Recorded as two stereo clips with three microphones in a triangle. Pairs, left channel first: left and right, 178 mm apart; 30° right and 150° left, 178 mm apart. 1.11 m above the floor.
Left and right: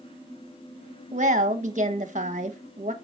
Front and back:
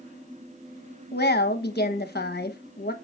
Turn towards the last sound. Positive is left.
turn(degrees=-45)